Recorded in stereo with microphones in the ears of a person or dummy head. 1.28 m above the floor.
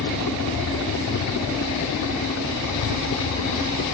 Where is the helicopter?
70° left (ahead or behind).